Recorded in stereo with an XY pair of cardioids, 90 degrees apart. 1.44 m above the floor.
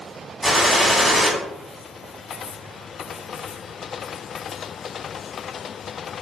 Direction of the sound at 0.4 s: 15° right.